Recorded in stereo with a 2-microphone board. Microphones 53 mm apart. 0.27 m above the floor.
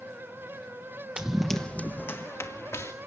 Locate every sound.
1.2 s running footsteps: 20° right (ahead or behind), 1.0 m; by 2.9 s 75° left (ahead or behind), 1.7 m